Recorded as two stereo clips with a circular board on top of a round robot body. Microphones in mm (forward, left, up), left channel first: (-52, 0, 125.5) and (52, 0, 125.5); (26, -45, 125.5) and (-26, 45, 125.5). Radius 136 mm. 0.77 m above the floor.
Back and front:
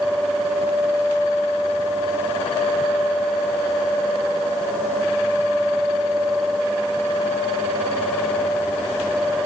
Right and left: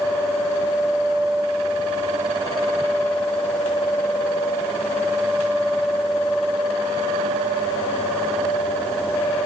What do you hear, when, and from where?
Only background noise.